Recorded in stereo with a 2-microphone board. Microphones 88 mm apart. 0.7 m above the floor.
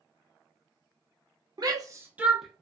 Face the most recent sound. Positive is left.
turn(degrees=5)  # may be behind; listen again after turning